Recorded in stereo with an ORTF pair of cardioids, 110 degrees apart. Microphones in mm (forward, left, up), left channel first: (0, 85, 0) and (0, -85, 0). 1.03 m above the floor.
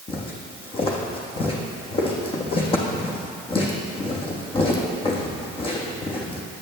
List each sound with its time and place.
0.1 s footsteps: 35° left, 3.5 m